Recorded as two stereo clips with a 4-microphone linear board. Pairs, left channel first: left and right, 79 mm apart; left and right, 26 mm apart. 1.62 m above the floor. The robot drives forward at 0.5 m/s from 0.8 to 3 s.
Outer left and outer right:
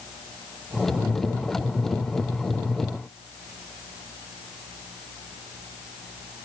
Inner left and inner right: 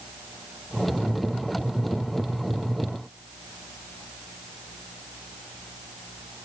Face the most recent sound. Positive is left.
No sound to turn to.